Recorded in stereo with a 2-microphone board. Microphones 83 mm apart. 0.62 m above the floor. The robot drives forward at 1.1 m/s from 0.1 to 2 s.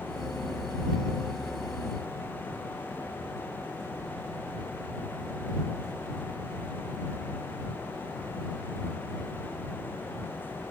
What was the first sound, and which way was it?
Only background noise.